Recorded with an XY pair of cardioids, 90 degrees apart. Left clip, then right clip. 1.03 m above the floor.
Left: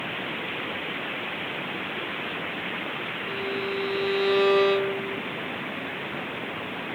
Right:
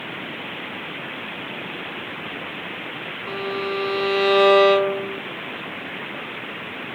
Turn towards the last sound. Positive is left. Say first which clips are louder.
# right 5 dB
turn(degrees=-65)